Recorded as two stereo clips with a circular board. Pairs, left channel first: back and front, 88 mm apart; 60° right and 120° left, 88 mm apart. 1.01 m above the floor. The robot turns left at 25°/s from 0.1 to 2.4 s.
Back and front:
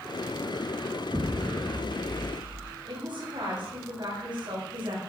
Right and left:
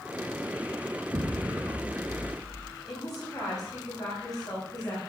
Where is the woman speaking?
20° right, 4 m.